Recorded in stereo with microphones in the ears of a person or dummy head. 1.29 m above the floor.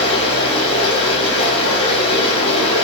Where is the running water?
30° left (ahead or behind), 0.8 m.